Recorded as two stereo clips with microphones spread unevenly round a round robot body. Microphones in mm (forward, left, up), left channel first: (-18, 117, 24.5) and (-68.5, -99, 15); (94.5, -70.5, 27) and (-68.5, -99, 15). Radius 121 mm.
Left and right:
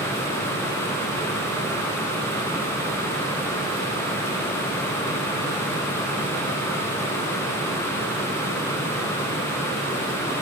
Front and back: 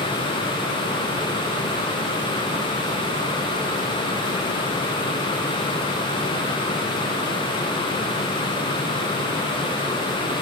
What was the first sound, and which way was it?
Only background noise.